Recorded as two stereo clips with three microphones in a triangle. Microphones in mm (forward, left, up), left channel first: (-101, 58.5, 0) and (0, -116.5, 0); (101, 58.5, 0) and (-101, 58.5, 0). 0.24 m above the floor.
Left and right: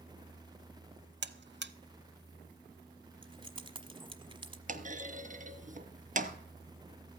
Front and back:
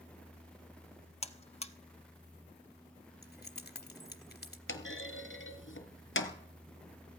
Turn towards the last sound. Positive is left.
turn(degrees=-10)